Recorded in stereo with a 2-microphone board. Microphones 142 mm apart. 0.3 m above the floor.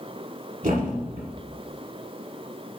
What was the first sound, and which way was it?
A thud, 75° right (ahead or behind).